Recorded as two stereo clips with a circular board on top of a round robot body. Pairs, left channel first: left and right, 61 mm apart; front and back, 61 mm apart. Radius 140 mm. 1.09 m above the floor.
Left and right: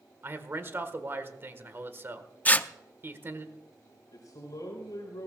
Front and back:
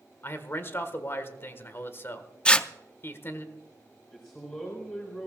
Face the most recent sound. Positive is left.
turn(degrees=75)